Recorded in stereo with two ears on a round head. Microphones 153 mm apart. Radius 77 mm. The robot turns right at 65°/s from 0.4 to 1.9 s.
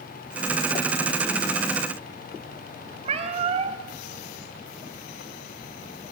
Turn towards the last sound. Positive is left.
turn(degrees=-40)  # may be behind; listen again after turning